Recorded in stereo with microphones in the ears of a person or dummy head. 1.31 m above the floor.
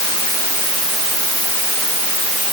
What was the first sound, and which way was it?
Only background noise.